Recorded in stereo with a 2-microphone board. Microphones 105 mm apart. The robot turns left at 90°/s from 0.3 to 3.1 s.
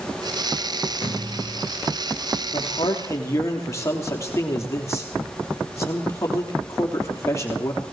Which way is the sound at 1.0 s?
140° left.